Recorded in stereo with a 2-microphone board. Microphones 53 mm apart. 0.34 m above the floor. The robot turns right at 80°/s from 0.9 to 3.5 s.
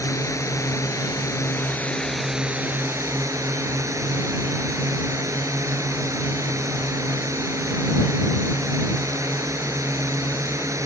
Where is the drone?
75° left; by 10.9 s 75° right.